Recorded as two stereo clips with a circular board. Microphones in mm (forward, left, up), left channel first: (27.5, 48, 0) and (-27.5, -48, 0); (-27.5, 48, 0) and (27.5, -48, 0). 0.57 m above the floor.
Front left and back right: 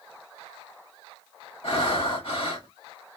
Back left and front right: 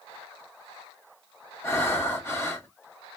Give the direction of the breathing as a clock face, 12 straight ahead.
10 o'clock.